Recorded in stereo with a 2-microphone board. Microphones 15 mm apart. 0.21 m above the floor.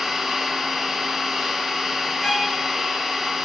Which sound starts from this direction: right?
An engine running, at 0.0 s.